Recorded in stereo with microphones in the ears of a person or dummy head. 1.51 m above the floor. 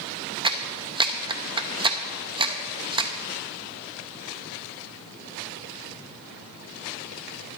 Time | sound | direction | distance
0.4 | a clap | 20° right (ahead or behind) | 0.6 m